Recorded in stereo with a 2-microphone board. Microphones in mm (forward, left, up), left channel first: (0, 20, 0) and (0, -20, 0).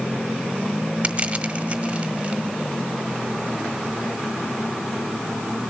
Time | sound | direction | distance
1.0 | crushing | 30° right (ahead or behind) | 1.1 m